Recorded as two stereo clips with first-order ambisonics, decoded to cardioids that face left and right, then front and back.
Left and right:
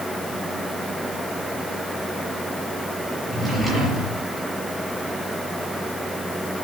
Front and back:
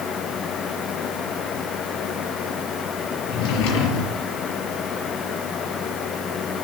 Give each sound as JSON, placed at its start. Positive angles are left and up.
{"t": 3.3, "sound": "a drawer", "azimuth_deg": 0, "distance_m": 5.5}